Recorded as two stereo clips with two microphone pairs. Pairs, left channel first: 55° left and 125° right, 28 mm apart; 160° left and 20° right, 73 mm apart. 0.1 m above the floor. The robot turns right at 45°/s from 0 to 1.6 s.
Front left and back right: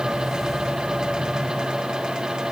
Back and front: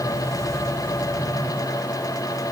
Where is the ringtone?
No ringtone in this recording.